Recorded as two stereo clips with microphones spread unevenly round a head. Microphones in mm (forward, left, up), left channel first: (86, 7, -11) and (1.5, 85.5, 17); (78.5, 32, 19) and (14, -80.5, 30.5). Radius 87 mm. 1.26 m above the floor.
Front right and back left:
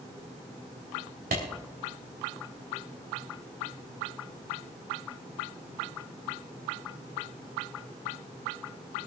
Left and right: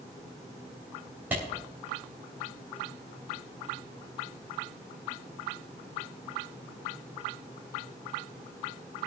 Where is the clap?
160° left, 3.5 m.